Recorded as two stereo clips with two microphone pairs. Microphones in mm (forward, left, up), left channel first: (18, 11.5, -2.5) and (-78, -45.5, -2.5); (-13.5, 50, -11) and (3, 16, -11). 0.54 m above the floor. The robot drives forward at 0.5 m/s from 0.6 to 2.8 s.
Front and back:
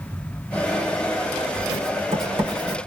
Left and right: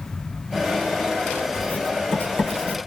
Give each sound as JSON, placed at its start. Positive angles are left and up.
{"t": 1.5, "sound": "writing", "azimuth_deg": 155, "distance_m": 1.3}